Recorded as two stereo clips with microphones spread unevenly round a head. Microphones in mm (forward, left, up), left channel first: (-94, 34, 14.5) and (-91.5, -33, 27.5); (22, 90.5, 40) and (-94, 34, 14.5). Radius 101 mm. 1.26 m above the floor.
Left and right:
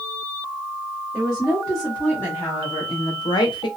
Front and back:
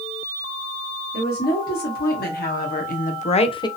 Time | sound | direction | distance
1.1 | a woman speaking | straight ahead | 1.3 m